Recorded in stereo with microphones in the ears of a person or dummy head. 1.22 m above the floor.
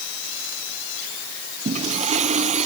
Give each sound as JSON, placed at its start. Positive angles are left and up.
{"t": 1.6, "sound": "a toilet flushing", "side_deg": -35}